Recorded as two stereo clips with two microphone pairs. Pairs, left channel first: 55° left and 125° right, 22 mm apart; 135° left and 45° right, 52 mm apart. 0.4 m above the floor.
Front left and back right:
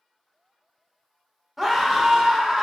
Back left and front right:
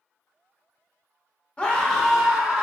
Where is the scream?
165° left, 1.1 m; by 2.6 s 115° right, 1.2 m.